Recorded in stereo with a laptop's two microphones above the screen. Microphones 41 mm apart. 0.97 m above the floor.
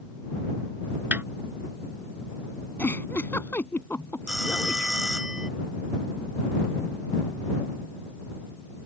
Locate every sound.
1.1 s a snare drum: 45° right (ahead or behind)
2.8 s a giggle: 50° left (ahead or behind)
4.3 s a phone ringing: 15° right (ahead or behind)